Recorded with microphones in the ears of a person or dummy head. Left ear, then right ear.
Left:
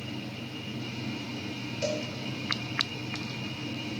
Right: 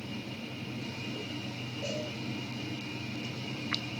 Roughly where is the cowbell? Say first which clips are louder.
Left 6 dB; left.